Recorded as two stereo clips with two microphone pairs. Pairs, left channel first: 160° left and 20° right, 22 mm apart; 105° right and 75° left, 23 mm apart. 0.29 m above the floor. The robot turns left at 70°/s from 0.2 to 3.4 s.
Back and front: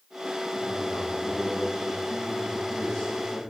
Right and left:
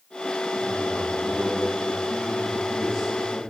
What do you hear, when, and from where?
0.5 s a man speaking: 10° left, 5 m; by 3.4 s 170° left, 5 m